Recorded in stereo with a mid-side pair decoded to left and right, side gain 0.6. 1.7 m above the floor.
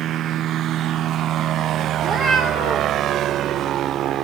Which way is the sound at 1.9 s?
45° right.